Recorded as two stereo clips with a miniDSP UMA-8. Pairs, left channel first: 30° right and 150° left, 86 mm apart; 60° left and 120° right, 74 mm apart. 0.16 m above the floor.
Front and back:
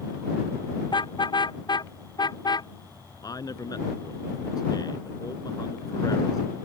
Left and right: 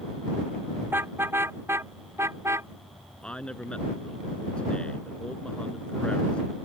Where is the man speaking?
10° right.